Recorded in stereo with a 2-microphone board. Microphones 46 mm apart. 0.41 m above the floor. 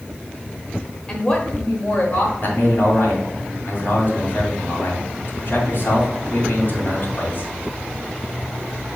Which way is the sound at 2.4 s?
55° left (ahead or behind).